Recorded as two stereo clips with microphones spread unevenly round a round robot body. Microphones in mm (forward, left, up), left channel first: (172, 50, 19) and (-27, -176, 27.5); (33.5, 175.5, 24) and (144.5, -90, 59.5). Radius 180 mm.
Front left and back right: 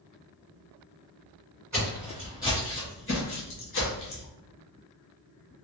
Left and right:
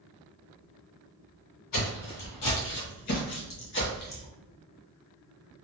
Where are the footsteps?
150° left, 1.6 m; by 4.3 s 50° left, 1.5 m.